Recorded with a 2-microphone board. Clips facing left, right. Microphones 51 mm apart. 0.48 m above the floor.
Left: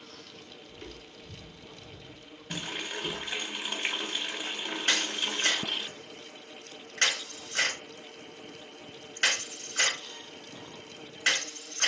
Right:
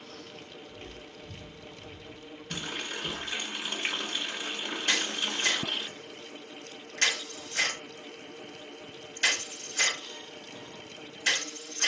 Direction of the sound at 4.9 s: 50° left (ahead or behind).